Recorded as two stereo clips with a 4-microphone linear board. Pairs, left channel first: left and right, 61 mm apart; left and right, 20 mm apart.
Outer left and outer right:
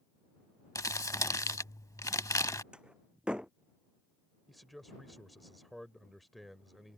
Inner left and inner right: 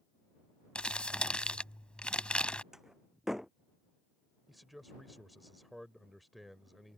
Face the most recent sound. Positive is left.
turn(degrees=0)  # may be behind; listen again after turning